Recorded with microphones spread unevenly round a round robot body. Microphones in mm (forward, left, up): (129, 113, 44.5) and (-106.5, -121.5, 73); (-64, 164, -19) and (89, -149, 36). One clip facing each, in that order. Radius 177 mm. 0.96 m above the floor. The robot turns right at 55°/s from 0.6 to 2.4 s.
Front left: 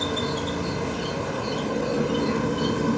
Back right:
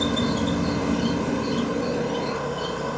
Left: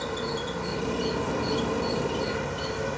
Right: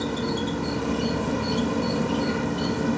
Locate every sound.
0.0 s an insect: 115° right, 0.9 m; by 3.0 s 15° right, 0.9 m